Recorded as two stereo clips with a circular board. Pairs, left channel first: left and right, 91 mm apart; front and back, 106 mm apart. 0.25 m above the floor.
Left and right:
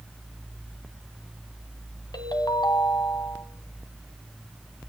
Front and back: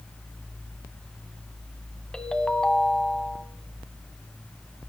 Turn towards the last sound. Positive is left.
turn(degrees=80)